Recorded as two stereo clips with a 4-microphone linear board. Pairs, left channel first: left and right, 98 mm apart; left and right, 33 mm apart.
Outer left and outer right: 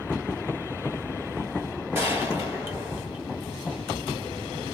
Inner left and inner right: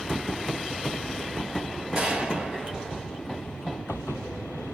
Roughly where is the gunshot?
Right.